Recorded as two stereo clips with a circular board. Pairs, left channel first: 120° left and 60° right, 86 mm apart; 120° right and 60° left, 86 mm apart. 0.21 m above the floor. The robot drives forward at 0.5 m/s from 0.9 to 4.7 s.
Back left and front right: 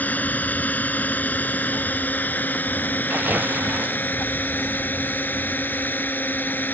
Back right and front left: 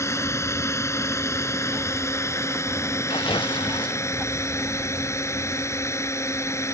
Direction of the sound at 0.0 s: 170° right.